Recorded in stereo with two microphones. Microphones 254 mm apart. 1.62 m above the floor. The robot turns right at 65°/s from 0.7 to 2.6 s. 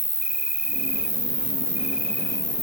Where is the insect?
85° right, 0.7 m; by 2.6 s 40° left, 0.7 m.